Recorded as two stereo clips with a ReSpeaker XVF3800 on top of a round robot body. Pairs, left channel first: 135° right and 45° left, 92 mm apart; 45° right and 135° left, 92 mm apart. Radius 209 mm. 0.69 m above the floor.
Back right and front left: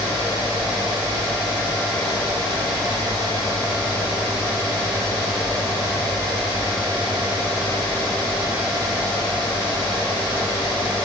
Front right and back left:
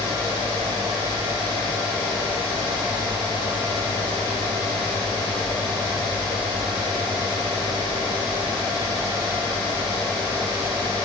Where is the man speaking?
No man speaking in this recording.